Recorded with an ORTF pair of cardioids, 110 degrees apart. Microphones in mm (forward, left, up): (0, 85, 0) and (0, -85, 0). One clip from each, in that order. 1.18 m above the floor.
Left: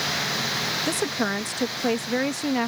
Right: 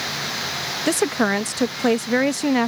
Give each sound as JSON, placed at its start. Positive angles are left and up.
{"t": 0.9, "sound": "a woman speaking", "azimuth_deg": -35}